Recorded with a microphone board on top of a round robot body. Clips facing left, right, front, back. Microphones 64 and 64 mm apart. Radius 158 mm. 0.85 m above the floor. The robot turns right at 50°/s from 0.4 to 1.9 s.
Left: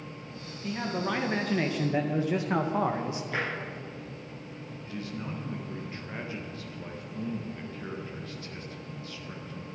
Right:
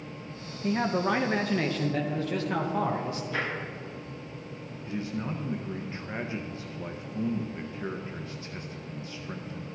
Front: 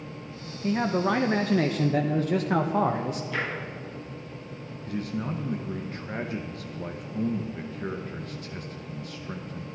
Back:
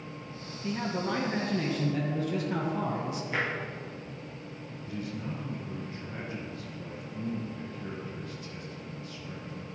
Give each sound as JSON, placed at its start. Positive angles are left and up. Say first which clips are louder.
{"t": 0.6, "sound": "a man speaking", "louder": "right 5 dB, front 7 dB", "azimuth_deg": -40, "distance_m": 0.7}
{"t": 3.3, "sound": "tapping", "louder": "even, back 1 dB", "azimuth_deg": 125, "distance_m": 4.0}
{"t": 4.9, "sound": "a man speaking", "louder": "right 5 dB, front 6 dB", "azimuth_deg": -25, "distance_m": 0.9}